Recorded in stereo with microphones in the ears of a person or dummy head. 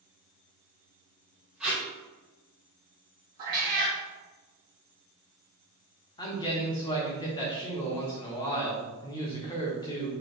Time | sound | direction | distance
1.6 | tape being pulled | 5° right (ahead or behind) | 1.5 m
3.4 | a cat meowing | 25° right (ahead or behind) | 1.0 m
6.2 | a man speaking | 20° left (ahead or behind) | 1.0 m